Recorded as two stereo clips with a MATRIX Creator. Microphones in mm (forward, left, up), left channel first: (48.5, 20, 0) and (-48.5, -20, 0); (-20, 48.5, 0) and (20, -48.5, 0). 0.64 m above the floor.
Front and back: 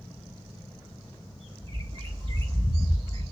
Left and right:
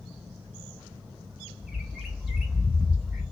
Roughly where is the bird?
Behind right.